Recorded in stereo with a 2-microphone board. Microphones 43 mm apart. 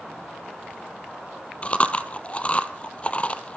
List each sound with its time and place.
1.6 s chewing: 30° left (ahead or behind), 1.2 m